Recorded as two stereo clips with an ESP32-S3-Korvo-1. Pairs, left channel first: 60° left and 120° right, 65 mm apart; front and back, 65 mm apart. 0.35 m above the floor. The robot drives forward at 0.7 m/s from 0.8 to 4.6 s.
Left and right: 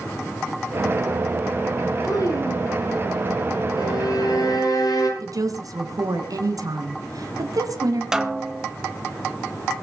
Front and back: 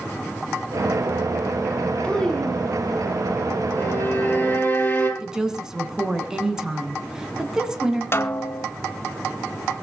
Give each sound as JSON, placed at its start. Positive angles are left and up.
{"t": 2.0, "sound": "a child speaking", "azimuth_deg": 75, "distance_m": 2.5}
{"t": 3.8, "sound": "a violin", "azimuth_deg": 55, "distance_m": 6.0}
{"t": 5.2, "sound": "a woman speaking", "azimuth_deg": -100, "distance_m": 3.0}
{"t": 8.1, "sound": "a snare drum", "azimuth_deg": -40, "distance_m": 1.1}